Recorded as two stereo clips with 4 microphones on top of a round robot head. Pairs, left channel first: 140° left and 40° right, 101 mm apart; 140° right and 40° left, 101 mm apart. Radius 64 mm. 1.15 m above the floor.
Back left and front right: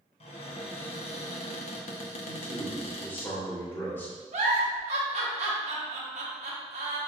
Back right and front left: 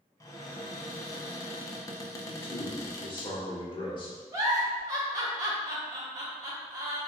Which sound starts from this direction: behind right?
A man speaking, at 2.2 s.